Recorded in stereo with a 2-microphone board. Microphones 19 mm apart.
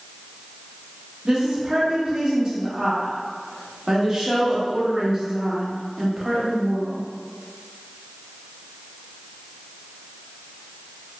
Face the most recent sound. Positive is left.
turn(degrees=-35)  # may be behind; listen again after turning